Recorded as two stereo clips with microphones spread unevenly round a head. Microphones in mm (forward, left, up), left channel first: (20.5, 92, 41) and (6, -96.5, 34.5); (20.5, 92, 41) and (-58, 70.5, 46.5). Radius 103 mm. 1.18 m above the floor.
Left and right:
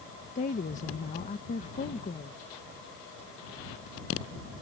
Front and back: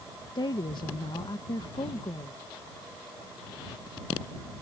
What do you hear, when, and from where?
0.3 s a woman speaking: 35° left